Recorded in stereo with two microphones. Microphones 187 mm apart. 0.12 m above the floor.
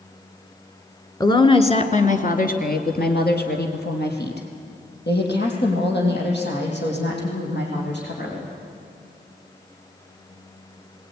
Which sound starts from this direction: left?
A woman speaking, at 1.2 s.